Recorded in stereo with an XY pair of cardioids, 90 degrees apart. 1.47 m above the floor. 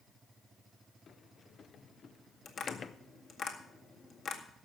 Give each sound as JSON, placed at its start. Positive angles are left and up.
{"t": 1.1, "sound": "a sliding door", "azimuth_deg": 50, "distance_m": 0.7}
{"t": 2.5, "sound": "tapping", "azimuth_deg": 60, "distance_m": 2.0}